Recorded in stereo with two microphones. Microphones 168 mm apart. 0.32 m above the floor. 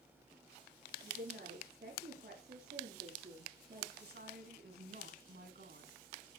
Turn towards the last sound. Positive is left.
turn(degrees=-65)  # may be behind; listen again after turning